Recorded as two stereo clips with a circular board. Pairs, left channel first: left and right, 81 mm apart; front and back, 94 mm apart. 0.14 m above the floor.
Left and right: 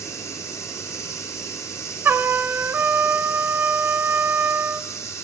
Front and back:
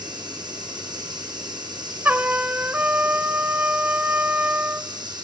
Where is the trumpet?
125° right, 0.6 m.